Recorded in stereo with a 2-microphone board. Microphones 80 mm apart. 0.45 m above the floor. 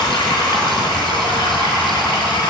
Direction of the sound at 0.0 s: 65° left (ahead or behind).